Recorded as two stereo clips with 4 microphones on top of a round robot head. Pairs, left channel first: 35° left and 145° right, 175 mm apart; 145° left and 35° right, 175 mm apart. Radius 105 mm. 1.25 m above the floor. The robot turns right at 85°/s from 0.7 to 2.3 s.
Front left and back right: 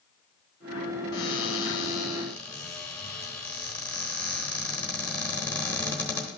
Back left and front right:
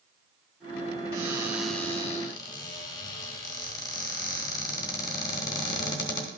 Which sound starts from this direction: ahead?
A cupboard door, at 1.1 s.